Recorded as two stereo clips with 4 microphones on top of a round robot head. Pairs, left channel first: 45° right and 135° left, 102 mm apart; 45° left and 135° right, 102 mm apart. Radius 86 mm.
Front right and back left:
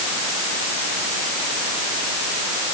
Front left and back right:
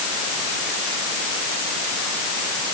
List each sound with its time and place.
Only background noise.